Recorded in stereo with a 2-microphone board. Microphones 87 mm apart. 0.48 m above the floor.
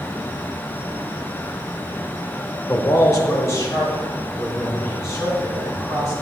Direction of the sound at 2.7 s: 40° left (ahead or behind).